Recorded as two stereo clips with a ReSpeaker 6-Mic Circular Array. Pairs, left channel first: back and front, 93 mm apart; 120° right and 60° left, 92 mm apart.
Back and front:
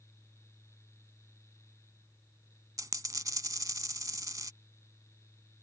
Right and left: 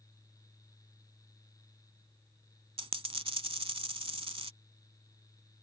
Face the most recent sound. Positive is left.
turn(degrees=50)